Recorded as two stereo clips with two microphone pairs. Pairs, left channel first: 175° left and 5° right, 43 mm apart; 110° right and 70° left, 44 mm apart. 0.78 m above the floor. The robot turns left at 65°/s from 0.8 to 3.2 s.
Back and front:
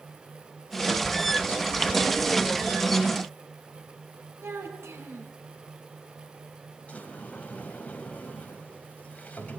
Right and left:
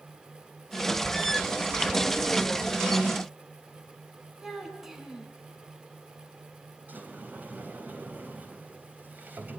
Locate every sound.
4.4 s a child speaking: 10° right, 7 m
6.9 s a sliding door: 120° left, 4 m